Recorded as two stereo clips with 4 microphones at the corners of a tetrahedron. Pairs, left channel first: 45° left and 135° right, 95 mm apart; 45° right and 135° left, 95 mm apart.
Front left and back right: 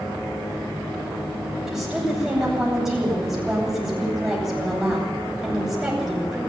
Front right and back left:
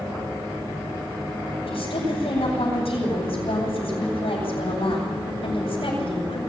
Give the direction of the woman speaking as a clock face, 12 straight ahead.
2 o'clock.